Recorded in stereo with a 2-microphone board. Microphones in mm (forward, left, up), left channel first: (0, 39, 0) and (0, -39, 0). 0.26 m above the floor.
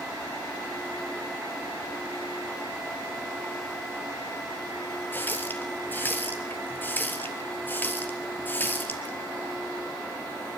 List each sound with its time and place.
5.1 s a running tap: 25° left (ahead or behind), 3.5 m